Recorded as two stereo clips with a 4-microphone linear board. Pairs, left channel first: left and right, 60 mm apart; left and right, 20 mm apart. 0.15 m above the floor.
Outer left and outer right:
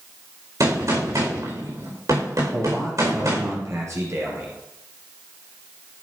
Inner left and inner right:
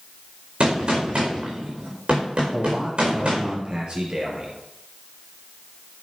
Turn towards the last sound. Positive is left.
turn(degrees=-50)  # may be behind; listen again after turning